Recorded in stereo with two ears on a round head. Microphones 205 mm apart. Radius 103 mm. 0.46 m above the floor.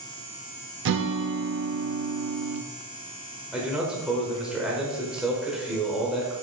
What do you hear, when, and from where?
0.8 s a guitar: 50° right (ahead or behind), 0.6 m
3.5 s a man speaking: 5° right (ahead or behind), 1.7 m